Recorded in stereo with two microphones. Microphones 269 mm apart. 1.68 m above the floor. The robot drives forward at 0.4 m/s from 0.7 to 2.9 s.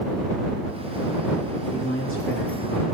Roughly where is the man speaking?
Left.